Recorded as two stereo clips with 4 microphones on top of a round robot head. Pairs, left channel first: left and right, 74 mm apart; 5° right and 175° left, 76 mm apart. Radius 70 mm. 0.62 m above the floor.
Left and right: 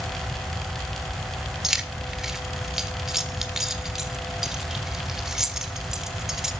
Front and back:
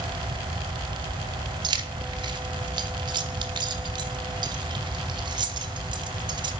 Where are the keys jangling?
175° right, 1.0 m.